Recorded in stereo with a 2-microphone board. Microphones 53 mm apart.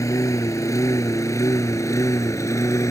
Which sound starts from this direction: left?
A lawn mower, at 0.0 s.